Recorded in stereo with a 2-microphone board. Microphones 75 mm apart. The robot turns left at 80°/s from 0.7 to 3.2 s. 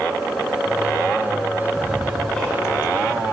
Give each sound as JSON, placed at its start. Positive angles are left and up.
{"t": 1.7, "sound": "ticking", "side_deg": -30, "distance_m": 2.5}